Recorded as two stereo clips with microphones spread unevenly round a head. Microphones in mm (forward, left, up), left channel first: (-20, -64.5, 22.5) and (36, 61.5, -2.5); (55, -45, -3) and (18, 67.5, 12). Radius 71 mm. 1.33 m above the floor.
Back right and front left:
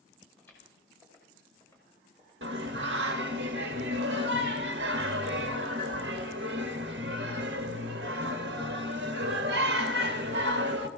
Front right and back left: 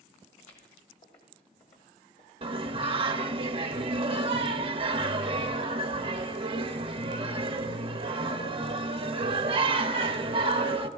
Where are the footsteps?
35° right, 7 m; by 2.3 s 45° right, 6 m.